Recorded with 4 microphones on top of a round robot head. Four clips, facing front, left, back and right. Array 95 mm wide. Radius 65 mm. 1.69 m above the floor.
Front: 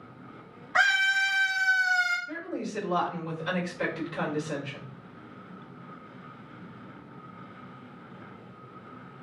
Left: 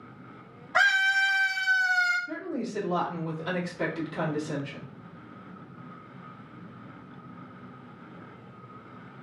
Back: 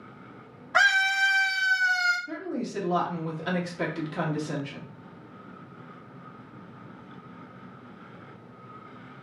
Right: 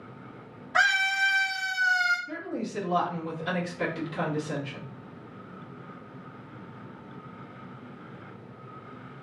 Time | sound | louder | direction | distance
0.7 | a scream | left 1 dB, back 2 dB | 170° left | 1.4 m
2.3 | a woman speaking | left 1 dB, back 2 dB | 175° left | 1.4 m